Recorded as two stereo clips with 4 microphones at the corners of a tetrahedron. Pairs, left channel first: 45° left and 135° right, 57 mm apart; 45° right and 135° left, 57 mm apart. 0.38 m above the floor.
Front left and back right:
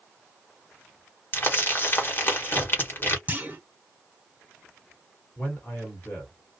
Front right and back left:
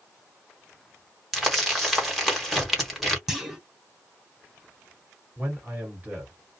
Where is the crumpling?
45° left, 1.3 m.